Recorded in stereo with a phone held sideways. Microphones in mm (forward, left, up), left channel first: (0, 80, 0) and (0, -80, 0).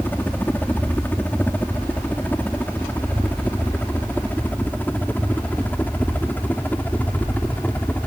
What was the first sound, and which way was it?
A helicopter, 10° left (ahead or behind).